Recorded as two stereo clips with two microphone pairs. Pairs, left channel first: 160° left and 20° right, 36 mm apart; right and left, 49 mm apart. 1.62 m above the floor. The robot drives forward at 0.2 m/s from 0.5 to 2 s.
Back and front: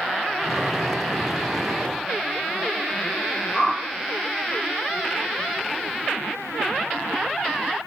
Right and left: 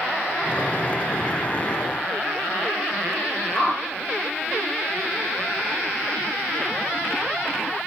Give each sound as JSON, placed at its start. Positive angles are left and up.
{"t": 3.5, "sound": "a whoosh", "azimuth_deg": -145, "distance_m": 1.4}